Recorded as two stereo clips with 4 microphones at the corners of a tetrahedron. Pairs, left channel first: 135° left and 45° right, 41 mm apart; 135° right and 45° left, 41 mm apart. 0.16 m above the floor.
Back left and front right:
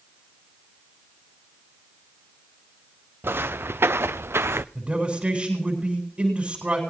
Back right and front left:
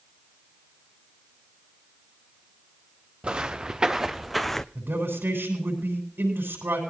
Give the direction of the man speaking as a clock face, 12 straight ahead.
11 o'clock.